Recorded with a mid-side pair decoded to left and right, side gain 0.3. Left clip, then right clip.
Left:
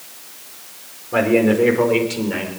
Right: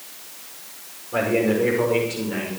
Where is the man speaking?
60° left, 5.5 m; by 2.5 s 65° left, 6 m.